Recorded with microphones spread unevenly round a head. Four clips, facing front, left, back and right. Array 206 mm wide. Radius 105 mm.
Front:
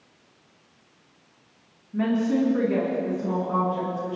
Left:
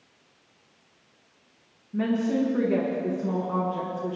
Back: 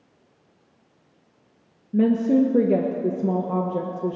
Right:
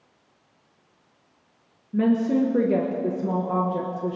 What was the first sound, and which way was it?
A woman speaking, 160° right.